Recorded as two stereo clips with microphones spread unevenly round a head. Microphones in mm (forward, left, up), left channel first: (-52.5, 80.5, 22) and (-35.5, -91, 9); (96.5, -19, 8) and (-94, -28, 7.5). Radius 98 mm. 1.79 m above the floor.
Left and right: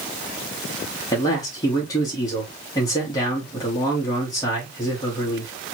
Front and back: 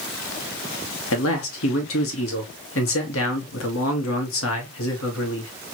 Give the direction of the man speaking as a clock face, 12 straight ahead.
11 o'clock.